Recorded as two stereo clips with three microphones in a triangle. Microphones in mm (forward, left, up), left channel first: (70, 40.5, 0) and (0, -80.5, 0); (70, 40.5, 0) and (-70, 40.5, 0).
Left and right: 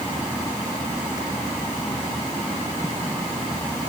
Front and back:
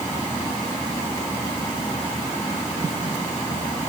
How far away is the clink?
No clink in this recording.